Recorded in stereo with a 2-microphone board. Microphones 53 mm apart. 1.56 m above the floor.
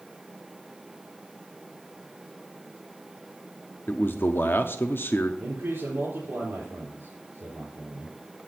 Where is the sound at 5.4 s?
45° right (ahead or behind), 4.5 m.